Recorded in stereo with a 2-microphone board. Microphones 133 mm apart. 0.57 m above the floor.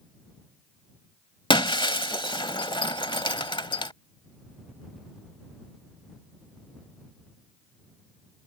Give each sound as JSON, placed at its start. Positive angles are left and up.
{"t": 1.5, "sound": "breaking glass", "side_deg": 35}